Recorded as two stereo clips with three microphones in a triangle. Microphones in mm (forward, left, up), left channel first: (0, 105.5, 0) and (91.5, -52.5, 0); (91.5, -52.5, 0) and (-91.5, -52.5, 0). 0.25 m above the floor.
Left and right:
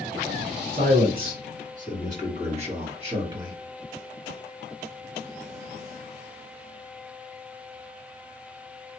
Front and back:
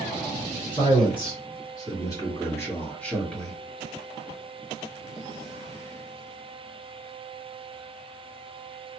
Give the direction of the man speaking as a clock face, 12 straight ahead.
2 o'clock.